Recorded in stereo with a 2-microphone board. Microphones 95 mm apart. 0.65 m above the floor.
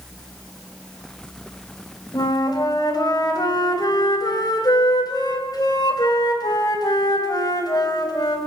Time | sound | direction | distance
2.1 | a flute | 45° left (ahead or behind) | 3.5 m